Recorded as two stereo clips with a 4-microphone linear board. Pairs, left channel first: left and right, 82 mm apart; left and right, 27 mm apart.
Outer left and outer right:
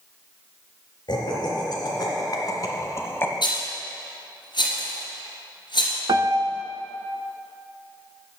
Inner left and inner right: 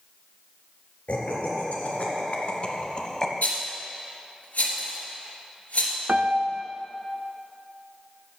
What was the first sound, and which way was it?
Laughter, 65° left (ahead or behind).